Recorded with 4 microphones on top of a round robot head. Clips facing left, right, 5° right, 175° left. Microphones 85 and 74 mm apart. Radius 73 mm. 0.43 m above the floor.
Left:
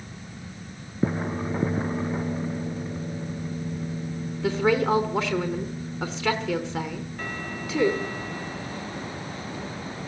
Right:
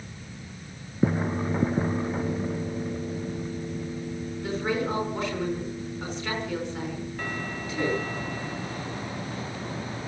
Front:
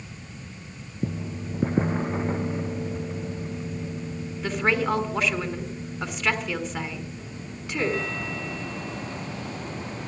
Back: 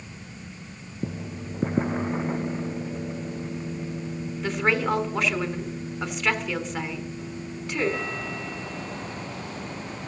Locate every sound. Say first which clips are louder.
4.4 s a woman speaking: left 6 dB, even; 85° left, 4.5 m